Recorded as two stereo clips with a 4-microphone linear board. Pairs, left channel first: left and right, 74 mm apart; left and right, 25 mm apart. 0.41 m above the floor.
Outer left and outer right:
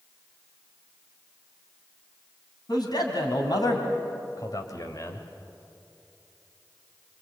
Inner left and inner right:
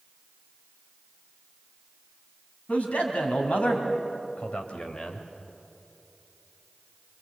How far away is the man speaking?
About 4 m.